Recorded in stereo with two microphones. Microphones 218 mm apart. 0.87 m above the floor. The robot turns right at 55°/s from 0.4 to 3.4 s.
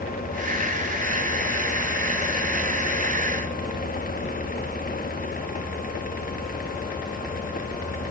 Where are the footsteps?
No footsteps in this recording.